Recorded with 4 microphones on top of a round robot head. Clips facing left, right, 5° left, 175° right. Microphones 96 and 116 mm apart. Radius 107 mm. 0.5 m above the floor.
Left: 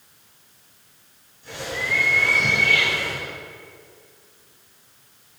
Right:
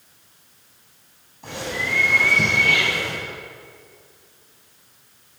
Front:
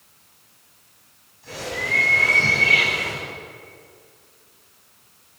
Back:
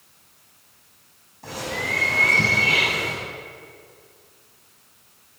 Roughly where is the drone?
No drone in this recording.